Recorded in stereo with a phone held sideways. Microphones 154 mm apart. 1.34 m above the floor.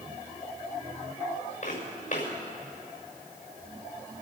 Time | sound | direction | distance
1.6 | footsteps | 50° left (ahead or behind) | 6.5 m